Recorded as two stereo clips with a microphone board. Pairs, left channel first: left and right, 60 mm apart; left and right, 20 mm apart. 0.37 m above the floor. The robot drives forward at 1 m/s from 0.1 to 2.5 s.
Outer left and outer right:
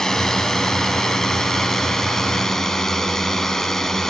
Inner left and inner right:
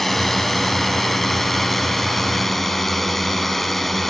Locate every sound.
0.0 s a drone: 10° left (ahead or behind)